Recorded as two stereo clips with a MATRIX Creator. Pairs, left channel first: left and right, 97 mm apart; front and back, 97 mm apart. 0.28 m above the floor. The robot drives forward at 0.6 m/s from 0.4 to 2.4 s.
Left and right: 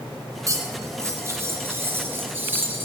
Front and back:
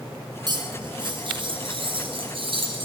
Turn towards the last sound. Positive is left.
turn(degrees=-160)